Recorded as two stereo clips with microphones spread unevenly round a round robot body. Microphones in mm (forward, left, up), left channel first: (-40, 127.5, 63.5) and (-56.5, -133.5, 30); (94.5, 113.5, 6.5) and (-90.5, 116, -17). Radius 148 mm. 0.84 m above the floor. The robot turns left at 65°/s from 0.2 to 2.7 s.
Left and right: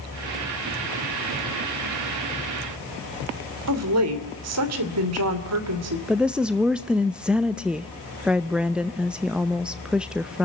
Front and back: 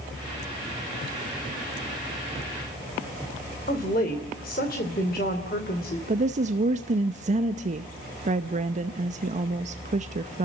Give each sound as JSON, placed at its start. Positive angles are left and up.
{"t": 3.7, "sound": "a woman speaking", "azimuth_deg": -65, "distance_m": 2.5}
{"t": 6.1, "sound": "a woman speaking", "azimuth_deg": -170, "distance_m": 0.7}